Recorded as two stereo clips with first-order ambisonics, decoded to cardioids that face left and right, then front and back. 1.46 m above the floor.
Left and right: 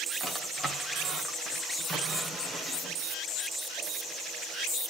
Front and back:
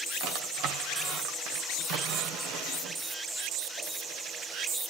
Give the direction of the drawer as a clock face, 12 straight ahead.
6 o'clock.